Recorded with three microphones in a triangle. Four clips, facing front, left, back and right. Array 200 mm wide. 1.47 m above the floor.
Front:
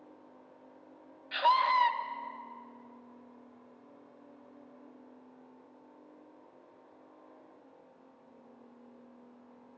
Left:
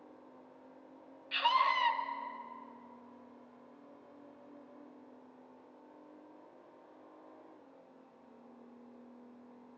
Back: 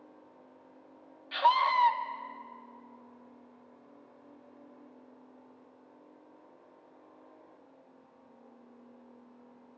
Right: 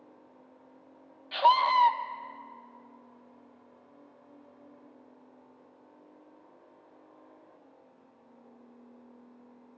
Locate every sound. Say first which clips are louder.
1.3 s a scream: right 8 dB, back 1 dB; 85° right, 1.4 m